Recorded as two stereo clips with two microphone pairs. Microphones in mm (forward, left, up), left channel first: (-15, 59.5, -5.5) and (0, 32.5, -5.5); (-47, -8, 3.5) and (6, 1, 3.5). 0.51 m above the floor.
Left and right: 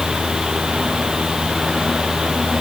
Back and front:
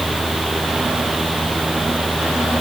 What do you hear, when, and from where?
Only background noise.